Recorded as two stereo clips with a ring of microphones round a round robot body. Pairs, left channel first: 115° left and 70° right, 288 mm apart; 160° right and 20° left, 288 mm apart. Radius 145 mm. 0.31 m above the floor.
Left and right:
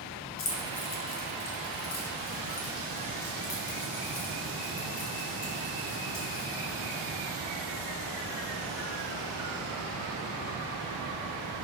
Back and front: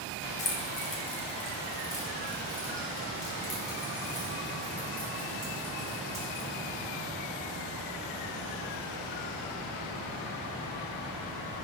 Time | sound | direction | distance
0.4 | keys jangling | 150° left | 1.0 m